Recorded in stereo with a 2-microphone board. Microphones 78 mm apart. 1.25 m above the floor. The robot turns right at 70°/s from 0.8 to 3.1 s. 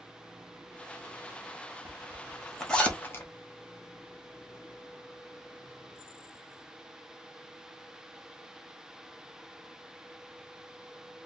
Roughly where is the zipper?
Right.